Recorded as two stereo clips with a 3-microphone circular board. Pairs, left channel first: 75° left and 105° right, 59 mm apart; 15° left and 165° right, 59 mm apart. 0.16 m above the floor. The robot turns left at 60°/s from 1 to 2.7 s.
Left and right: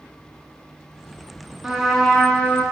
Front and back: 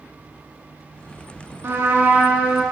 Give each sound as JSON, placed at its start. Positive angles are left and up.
{"t": 1.6, "sound": "a trumpet", "azimuth_deg": 180, "distance_m": 0.6}